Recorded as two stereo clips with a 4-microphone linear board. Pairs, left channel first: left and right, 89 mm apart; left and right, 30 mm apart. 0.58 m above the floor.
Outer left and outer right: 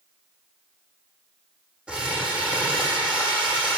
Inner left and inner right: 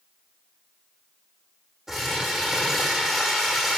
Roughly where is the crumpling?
Centre.